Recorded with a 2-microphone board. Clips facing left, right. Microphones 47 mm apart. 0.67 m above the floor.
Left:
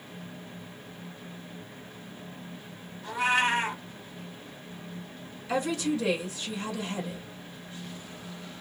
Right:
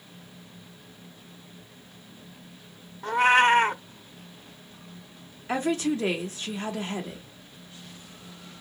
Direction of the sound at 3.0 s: 50° right (ahead or behind).